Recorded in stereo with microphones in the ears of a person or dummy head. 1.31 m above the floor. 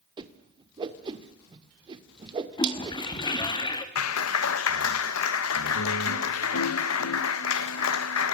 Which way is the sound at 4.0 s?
80° left.